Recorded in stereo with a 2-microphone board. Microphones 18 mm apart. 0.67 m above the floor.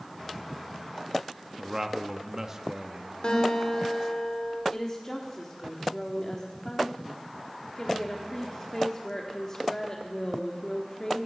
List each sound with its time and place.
1.6 s a man speaking: 25° right (ahead or behind), 0.9 m
3.2 s a guitar: 60° left (ahead or behind), 2.5 m
4.7 s a woman speaking: 30° left (ahead or behind), 1.3 m